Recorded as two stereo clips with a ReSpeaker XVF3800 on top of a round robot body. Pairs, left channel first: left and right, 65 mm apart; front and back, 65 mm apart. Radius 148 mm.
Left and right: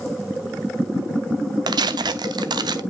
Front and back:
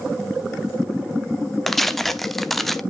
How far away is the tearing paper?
About 0.6 m.